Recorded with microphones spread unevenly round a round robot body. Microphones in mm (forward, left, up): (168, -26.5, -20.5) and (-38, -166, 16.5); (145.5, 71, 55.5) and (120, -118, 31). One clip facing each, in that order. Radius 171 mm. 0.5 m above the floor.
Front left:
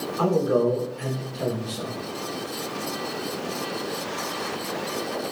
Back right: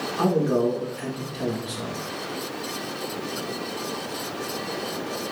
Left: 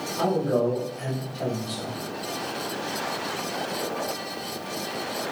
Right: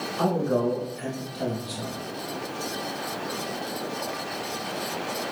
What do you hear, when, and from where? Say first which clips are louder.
0.2 s a man speaking: even, left 1 dB; 165° left, 1.8 m